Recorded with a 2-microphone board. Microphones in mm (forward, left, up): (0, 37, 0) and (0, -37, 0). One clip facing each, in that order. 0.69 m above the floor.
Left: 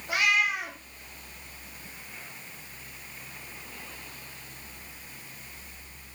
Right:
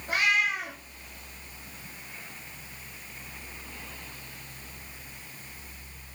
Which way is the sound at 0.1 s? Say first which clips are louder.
Even; 45° right (ahead or behind).